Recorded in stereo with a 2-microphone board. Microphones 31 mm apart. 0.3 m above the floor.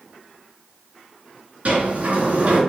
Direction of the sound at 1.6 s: 55° right (ahead or behind).